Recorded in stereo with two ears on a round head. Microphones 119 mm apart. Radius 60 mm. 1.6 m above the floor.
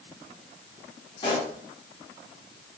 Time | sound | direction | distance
1.2 | a pop | 40° left (ahead or behind) | 2 m